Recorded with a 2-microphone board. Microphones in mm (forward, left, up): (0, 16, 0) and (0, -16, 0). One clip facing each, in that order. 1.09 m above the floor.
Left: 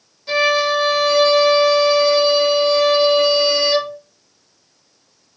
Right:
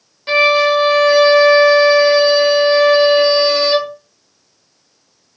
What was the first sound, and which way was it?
A violin, 45° right (ahead or behind).